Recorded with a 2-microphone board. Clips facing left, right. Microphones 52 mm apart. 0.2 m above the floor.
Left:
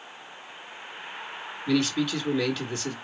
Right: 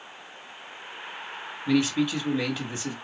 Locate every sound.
1.7 s a man speaking: 20° right (ahead or behind), 1.0 m